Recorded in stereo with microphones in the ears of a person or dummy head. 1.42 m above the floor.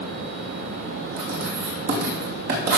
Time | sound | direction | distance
1.2 | writing | 65° right (ahead or behind) | 3 m